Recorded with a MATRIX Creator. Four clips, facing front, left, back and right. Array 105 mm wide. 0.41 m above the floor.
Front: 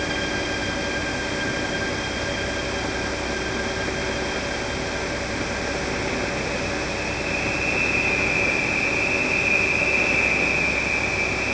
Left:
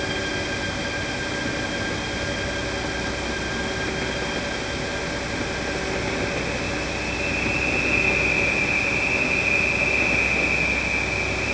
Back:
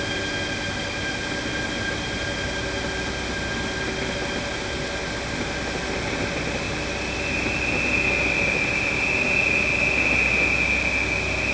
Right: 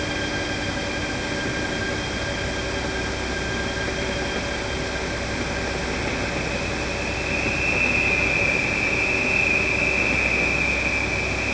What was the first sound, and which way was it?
Only background noise.